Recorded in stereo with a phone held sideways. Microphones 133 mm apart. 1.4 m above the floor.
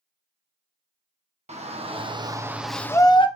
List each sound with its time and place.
1.5 s a shout: 55° right (ahead or behind), 1.7 m; by 3.3 s 40° left (ahead or behind), 1.0 m